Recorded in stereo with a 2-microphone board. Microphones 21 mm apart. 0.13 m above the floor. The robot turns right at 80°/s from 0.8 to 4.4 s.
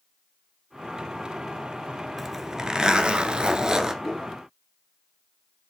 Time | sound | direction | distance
2.2 | a zipper | 175° right | 0.7 m
4.0 | a whoosh | 40° left (ahead or behind) | 1.0 m